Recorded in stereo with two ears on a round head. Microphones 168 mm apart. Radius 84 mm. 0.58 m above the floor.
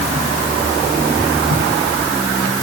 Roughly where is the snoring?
I don't hear snoring.